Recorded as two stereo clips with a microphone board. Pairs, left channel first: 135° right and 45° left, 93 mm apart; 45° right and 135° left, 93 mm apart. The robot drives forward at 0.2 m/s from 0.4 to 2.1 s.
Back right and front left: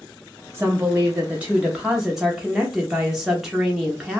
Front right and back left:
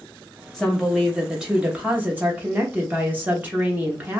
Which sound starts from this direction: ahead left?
A woman speaking, at 0.5 s.